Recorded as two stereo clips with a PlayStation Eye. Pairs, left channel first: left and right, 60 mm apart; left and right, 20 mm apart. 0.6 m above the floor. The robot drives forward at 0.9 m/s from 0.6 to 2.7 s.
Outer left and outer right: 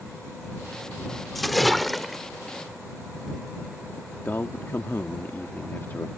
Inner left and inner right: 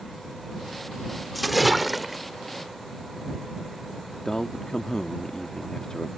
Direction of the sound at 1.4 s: Centre (ahead or behind).